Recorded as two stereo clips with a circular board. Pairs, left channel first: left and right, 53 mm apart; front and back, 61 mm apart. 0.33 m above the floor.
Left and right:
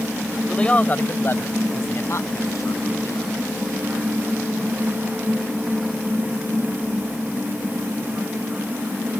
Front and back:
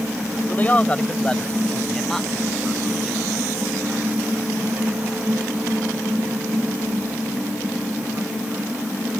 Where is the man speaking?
30° left; by 3.3 s 90° left.